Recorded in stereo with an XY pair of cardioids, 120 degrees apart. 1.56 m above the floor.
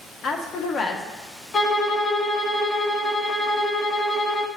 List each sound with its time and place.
0.2 s a woman speaking: 50° left, 1.1 m
1.5 s a violin: 40° left, 1.0 m